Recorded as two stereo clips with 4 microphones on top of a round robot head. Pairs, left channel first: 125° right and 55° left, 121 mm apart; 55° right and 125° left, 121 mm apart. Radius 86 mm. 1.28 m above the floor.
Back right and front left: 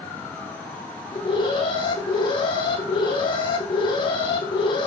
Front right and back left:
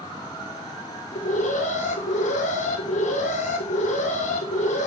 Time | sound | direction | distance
1.1 | an alarm | 75° right | 3.5 m